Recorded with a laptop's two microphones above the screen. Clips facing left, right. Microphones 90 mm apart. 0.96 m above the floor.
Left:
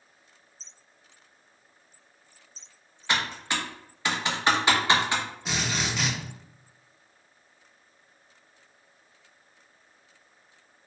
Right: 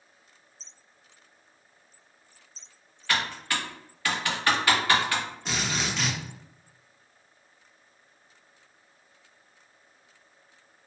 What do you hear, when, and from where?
3.1 s typing on a keyboard: 20° left (ahead or behind), 0.6 m
5.5 s a drill: 5° left (ahead or behind), 0.6 m